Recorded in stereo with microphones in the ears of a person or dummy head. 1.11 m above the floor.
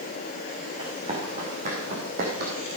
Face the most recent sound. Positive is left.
turn(degrees=-50)  # may be behind; listen again after turning